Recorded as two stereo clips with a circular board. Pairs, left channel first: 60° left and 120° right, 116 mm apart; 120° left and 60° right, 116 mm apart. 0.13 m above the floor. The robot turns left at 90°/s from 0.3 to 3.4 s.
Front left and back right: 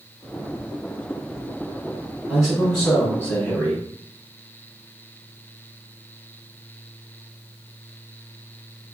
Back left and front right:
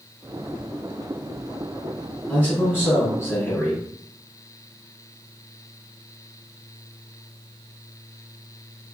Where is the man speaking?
Straight behind, 1.7 m; by 3.8 s 80° left, 1.7 m.